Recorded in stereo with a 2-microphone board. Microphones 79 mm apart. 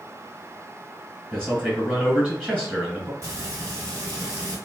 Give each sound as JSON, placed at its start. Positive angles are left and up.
{"t": 1.3, "sound": "a man speaking", "side_deg": -15, "distance_m": 1.6}
{"t": 3.2, "sound": "frying", "side_deg": -45, "distance_m": 1.9}